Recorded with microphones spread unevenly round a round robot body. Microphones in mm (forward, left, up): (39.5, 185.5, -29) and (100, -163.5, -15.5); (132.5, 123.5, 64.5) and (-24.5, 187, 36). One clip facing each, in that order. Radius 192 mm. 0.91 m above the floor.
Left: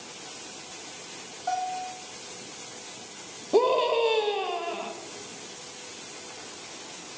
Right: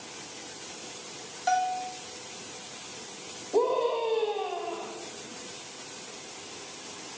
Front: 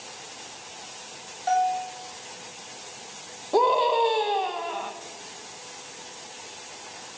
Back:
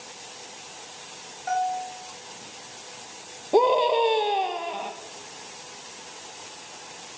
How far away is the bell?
About 1.1 m.